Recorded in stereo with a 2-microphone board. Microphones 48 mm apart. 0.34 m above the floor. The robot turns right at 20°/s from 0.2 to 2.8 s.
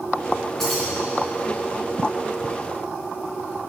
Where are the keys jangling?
5° left (ahead or behind), 3 m; by 0.9 s centre (ahead or behind), 3 m.